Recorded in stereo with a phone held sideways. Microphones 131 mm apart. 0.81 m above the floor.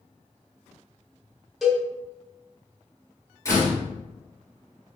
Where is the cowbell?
Centre (ahead or behind), 1.1 m.